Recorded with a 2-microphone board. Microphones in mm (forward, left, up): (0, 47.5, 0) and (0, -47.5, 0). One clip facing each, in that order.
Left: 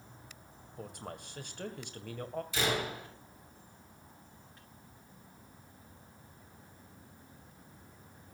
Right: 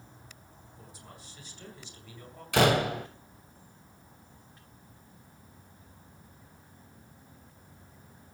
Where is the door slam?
65° right (ahead or behind), 1.8 m.